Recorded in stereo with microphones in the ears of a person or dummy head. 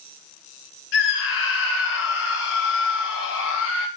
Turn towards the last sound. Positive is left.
turn(degrees=65)  # may be behind; listen again after turning